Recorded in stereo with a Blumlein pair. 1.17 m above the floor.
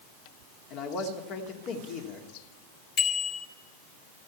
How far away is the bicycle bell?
About 3.5 m.